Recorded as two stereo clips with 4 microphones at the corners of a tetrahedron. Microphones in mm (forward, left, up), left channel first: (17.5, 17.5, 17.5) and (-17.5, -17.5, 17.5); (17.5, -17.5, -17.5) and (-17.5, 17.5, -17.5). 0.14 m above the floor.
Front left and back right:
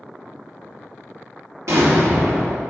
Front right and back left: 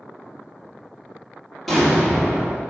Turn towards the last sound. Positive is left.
turn(degrees=-130)